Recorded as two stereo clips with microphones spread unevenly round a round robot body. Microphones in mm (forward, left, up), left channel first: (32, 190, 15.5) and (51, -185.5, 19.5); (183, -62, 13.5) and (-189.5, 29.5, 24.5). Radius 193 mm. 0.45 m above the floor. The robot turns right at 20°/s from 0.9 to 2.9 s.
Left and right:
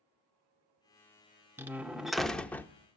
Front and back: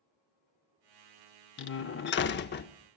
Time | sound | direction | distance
1.6 | a door slam | 5° right | 0.6 m